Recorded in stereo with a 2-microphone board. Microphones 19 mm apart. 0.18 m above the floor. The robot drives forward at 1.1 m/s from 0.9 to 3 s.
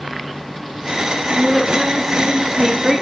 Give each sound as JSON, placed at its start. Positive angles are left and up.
{"t": 1.4, "sound": "a woman speaking", "side_deg": -5, "distance_m": 9.5}